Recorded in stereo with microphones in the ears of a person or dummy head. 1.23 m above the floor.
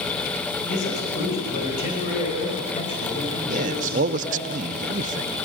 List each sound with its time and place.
0.7 s a man speaking: 55° left (ahead or behind), 5.5 m; by 4.5 s 25° left (ahead or behind), 4.5 m
3.5 s a man speaking: 40° right (ahead or behind), 0.7 m